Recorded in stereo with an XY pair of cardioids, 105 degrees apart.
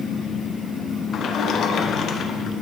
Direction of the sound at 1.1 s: 60° left.